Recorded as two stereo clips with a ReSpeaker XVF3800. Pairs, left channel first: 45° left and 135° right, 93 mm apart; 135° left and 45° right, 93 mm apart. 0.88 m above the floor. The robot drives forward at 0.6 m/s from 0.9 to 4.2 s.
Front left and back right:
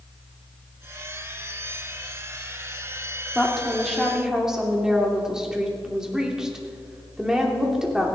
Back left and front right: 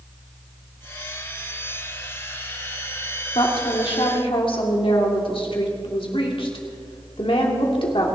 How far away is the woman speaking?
About 2.5 m.